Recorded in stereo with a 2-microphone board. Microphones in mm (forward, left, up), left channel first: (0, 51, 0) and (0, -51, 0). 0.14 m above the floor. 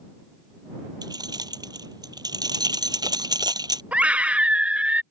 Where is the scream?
10° right (ahead or behind).